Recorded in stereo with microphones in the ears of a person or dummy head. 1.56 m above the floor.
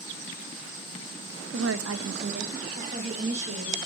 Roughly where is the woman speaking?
Right.